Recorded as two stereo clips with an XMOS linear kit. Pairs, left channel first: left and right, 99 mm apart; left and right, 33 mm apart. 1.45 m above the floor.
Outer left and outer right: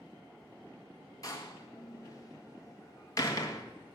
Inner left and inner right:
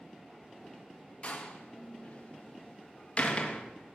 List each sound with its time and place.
1.2 s a door slam: 35° left (ahead or behind), 1.7 m